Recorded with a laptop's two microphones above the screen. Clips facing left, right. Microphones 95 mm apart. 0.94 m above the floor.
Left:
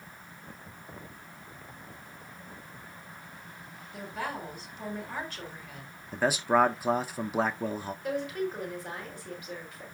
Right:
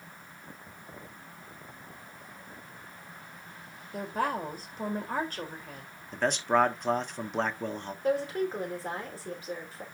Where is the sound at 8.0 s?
35° right (ahead or behind), 3.5 m.